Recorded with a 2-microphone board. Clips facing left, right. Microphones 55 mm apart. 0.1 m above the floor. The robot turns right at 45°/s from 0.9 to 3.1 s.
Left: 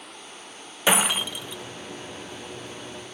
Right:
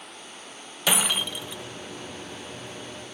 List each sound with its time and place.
0.9 s breaking glass: 160° left; by 1.6 s 170° right